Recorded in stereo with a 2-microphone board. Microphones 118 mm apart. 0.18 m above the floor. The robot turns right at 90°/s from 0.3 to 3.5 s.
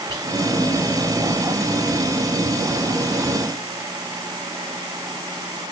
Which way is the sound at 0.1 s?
30° right (ahead or behind).